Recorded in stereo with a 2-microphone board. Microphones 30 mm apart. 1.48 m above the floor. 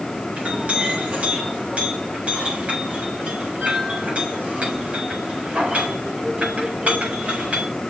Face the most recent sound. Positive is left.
turn(degrees=-55)  # may be behind; listen again after turning